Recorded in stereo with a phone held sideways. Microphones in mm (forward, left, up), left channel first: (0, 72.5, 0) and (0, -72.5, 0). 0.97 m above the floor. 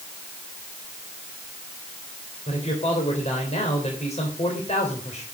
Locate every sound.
2.5 s a man speaking: 50° left (ahead or behind), 3.5 m